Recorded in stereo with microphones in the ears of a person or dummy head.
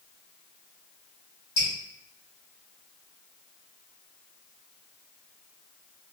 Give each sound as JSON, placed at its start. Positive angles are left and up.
{"t": 1.6, "sound": "dripping", "side_deg": 30, "distance_m": 1.1}